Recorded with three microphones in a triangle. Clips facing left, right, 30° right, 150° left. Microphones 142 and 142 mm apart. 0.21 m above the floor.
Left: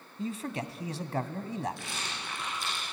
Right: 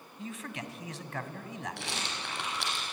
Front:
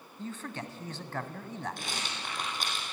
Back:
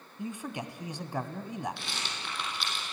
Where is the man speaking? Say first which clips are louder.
Left 6 dB, back 2 dB; 85° left, 1.3 m.